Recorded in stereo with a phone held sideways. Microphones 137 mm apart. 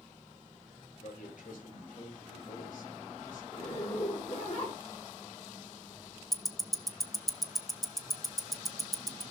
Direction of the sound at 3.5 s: 50° left (ahead or behind).